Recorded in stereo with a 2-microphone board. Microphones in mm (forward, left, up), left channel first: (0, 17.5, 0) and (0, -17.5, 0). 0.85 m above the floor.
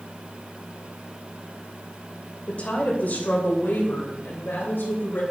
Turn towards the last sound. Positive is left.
turn(degrees=85)